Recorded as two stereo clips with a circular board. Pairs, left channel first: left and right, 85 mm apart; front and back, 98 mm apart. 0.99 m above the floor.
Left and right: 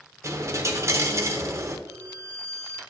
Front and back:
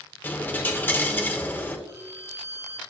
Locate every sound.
0.2 s a dropped coin: 60° right, 0.7 m
1.9 s a violin: 130° right, 0.8 m